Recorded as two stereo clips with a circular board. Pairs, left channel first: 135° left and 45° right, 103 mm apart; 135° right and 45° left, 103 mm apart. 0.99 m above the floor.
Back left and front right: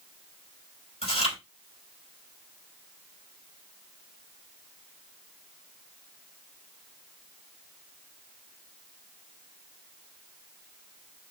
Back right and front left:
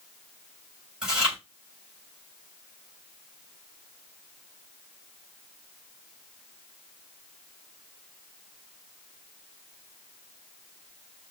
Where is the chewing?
125° left, 4 m.